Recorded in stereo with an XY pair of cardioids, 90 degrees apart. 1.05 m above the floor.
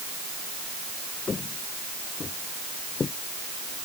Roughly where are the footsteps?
Ahead left.